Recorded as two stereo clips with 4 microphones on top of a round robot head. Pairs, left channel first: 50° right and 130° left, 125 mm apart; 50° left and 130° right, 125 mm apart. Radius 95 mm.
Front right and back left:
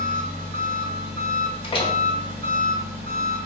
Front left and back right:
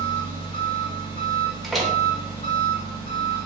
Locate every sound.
0.0 s an engine running: 110° left, 1.5 m
1.6 s a door slam: 40° right, 0.8 m